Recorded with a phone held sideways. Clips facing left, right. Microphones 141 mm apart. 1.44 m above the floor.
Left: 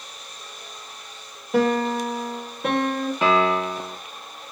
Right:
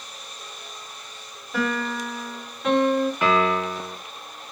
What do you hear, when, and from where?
1.5 s a piano: 60° left (ahead or behind), 1.0 m
3.2 s a piano: 25° left (ahead or behind), 1.0 m